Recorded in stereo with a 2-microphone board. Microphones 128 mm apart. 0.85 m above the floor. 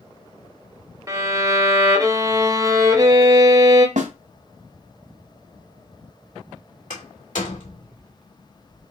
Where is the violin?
25° right (ahead or behind), 1.1 m.